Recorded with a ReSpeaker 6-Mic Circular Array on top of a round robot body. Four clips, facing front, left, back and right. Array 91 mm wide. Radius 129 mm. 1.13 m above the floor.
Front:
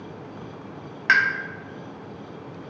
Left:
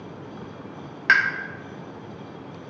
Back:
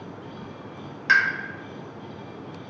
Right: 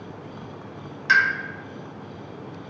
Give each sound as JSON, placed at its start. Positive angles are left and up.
{"t": 1.1, "sound": "a pop", "azimuth_deg": 55, "distance_m": 0.5}